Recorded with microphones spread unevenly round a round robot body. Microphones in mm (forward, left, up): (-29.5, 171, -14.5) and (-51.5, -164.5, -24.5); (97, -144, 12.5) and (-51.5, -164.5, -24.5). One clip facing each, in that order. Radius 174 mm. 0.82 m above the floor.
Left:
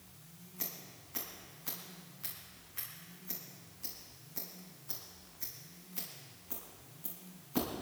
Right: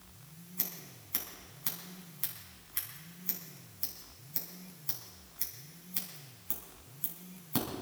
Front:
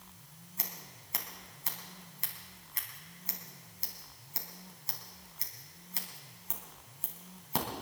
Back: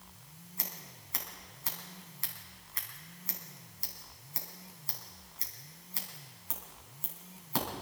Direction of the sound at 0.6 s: 55° right.